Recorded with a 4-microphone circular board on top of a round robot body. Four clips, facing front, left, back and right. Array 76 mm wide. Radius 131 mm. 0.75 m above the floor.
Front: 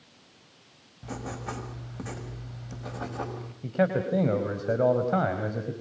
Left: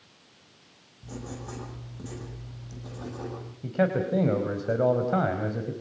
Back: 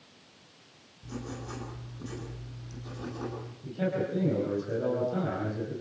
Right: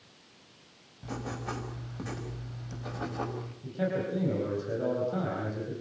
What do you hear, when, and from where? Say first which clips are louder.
1.0 s writing: right 3 dB, front 4 dB; 30° right, 6.5 m
3.6 s a man speaking: left 6 dB, front 5 dB; 45° left, 4.5 m